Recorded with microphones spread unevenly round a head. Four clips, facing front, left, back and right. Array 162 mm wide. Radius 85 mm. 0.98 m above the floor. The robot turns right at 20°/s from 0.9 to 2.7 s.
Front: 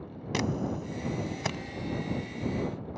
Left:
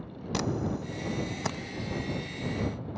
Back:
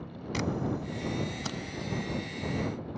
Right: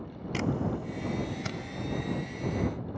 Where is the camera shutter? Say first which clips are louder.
Even, front 1 dB; 30° left; by 3.0 s 65° left.